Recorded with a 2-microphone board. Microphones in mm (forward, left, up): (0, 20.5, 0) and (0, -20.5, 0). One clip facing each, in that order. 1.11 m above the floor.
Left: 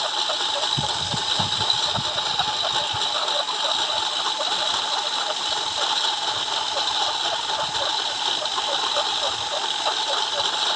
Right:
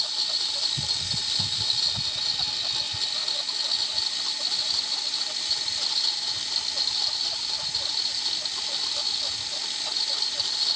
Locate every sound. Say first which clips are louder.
0.0 s a lawn mower: left 7 dB; 55° left (ahead or behind)